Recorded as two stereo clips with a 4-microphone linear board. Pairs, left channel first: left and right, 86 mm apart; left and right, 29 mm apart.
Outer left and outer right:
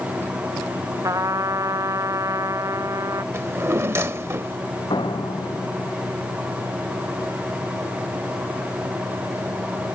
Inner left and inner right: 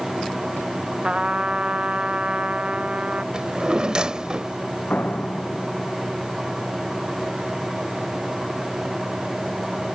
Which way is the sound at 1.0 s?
40° right (ahead or behind).